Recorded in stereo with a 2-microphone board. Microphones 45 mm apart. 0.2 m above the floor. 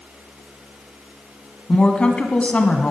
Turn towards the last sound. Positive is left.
turn(degrees=25)  # may be behind; listen again after turning